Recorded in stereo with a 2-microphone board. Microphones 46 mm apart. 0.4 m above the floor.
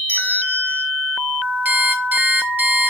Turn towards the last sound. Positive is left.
turn(degrees=-40)  # may be behind; listen again after turning